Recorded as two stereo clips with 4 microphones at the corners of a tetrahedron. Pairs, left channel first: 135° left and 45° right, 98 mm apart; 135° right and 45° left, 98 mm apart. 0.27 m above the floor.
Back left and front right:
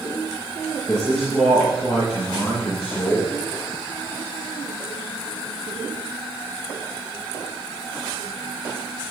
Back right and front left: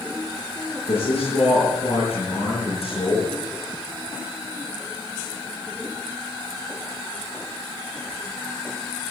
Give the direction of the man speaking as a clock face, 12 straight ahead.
5 o'clock.